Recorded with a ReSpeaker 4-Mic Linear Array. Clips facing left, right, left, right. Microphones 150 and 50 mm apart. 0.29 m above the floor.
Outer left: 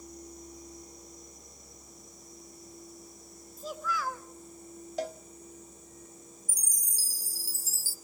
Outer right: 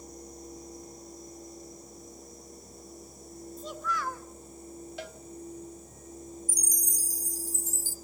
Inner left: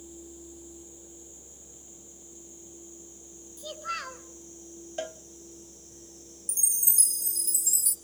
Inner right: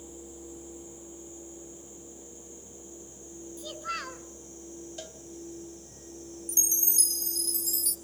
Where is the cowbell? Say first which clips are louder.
Outer left 10 dB, inner left 8 dB; 40° left (ahead or behind), 0.7 m.